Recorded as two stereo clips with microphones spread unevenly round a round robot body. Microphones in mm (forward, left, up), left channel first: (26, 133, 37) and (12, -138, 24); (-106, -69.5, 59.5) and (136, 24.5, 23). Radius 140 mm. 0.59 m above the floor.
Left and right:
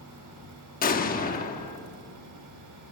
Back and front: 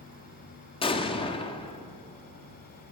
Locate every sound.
0.8 s an explosion: 130° left, 1.4 m